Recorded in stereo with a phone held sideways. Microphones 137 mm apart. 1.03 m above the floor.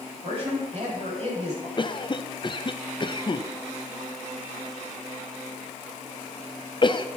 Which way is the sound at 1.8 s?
35° left (ahead or behind).